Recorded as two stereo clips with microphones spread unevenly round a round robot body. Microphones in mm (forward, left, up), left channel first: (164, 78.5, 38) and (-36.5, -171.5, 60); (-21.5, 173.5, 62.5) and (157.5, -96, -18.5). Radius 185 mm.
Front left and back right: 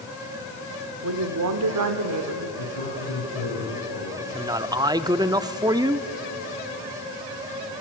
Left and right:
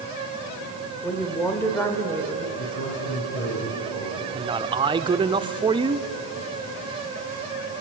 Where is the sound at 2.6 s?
75° left, 9.5 m.